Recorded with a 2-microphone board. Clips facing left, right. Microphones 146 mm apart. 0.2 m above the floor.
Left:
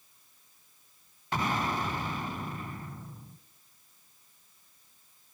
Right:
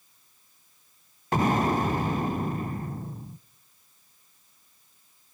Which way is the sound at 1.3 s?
45° right (ahead or behind).